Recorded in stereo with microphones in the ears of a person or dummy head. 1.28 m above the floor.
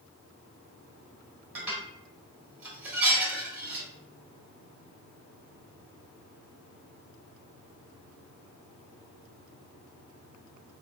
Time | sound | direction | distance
1.6 | dishes clattering | 20° right (ahead or behind) | 1.5 m